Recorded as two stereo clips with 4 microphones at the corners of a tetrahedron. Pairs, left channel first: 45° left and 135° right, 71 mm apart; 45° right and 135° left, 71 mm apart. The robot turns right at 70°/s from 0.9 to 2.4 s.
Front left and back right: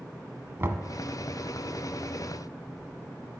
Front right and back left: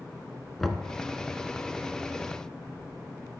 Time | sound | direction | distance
0.6 | knocking | 130° right | 0.8 m